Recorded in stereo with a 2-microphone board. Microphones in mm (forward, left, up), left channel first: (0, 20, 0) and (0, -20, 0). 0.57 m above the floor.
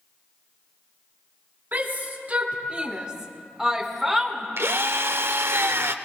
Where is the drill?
85° right, 0.5 m.